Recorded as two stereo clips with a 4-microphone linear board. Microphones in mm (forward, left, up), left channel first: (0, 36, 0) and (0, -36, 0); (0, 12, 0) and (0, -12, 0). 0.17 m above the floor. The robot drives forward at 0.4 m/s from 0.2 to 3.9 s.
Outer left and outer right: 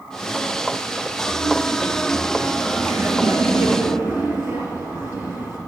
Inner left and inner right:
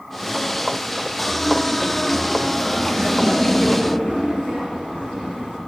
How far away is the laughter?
About 3 m.